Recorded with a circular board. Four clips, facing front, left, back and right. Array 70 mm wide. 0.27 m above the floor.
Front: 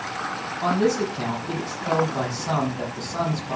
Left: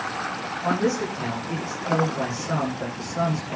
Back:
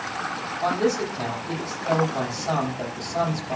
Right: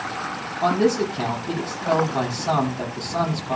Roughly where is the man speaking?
Right.